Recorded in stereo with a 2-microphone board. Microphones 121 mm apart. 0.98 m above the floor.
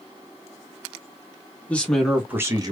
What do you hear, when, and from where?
1.7 s a man speaking: 15° left (ahead or behind), 1.4 m; by 2.7 s 35° right (ahead or behind), 1.1 m